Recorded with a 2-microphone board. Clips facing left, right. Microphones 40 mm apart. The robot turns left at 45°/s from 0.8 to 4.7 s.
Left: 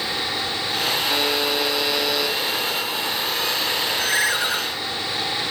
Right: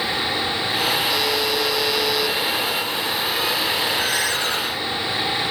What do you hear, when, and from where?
1.1 s a buzzer: 60° left, 1.7 m; by 2.4 s straight ahead, 1.7 m
4.1 s a ringtone: 30° left (ahead or behind), 2 m; by 4.6 s 10° left (ahead or behind), 2 m